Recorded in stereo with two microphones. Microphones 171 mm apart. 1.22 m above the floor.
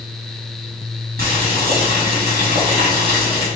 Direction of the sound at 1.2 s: 65° right (ahead or behind).